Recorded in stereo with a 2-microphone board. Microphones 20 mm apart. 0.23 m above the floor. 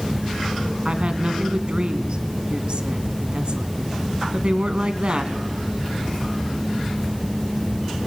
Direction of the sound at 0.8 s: 50° right (ahead or behind).